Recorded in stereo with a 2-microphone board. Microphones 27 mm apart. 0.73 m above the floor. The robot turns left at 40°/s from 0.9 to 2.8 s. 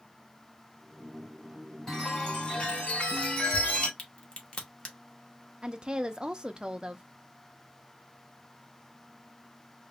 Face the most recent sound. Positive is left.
turn(degrees=-30)  # may be behind; listen again after turning